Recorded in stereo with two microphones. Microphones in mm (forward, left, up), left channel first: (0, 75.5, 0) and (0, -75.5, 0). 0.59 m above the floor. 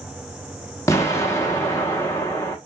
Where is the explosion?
20° left (ahead or behind), 0.6 m.